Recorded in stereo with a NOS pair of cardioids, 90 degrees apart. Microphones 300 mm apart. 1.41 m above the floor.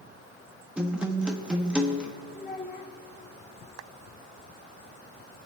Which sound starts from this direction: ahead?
A guitar, at 0.8 s.